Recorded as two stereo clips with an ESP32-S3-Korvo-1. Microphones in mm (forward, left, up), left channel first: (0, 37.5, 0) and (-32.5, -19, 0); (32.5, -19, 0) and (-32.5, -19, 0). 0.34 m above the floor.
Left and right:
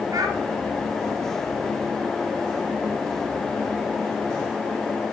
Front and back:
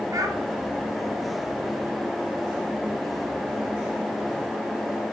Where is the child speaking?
145° right, 2.5 m.